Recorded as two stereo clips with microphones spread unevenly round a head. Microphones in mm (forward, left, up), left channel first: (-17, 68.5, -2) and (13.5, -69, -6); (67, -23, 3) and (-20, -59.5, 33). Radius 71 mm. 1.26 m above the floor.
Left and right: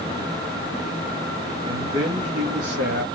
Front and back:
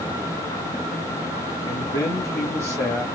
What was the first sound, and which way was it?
A man speaking, 25° right.